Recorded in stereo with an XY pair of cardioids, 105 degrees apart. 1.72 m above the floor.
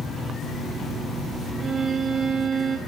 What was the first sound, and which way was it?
A violin, 35° right.